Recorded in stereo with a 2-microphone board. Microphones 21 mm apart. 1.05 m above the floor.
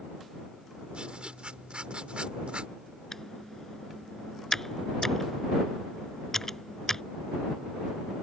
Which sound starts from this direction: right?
Writing, at 0.9 s.